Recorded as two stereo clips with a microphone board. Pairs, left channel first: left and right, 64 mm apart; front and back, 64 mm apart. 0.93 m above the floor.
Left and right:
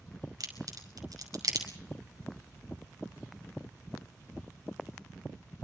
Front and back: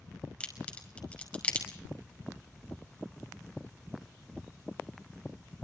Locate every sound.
0.4 s a crack: 70° right, 5.5 m